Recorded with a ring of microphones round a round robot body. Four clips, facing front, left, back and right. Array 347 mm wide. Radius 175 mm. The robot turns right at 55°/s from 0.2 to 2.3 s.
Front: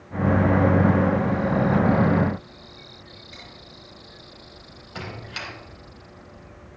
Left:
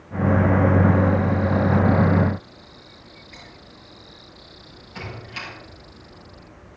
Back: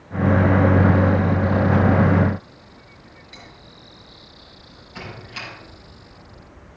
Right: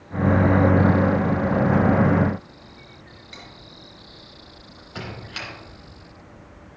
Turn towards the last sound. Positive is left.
turn(degrees=-45)